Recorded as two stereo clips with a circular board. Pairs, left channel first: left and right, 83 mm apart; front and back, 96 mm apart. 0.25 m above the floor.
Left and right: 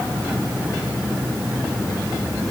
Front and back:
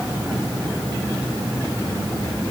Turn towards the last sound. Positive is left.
No sound to turn to.